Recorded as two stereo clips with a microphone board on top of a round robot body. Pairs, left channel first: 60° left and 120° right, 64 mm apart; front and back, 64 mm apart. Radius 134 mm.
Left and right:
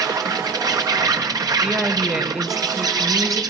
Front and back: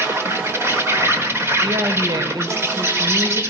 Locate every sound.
0.0 s an insect: 130° right, 4 m
1.6 s a woman speaking: 155° left, 3.5 m